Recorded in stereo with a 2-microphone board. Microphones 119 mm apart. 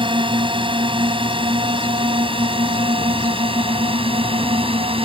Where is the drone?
45° right (ahead or behind); by 5.1 s 50° right (ahead or behind).